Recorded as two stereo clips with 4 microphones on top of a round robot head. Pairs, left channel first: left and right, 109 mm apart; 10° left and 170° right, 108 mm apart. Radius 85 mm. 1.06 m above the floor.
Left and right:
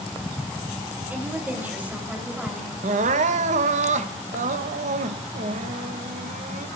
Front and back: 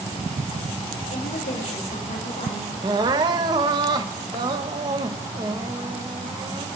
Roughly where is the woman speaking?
Ahead.